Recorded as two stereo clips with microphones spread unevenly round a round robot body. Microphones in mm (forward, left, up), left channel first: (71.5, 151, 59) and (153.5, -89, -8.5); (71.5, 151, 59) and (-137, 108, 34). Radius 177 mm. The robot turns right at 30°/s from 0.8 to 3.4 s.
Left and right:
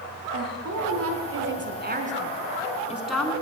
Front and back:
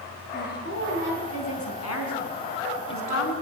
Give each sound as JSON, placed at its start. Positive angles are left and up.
{"t": 0.3, "sound": "a woman speaking", "azimuth_deg": -50, "distance_m": 5.0}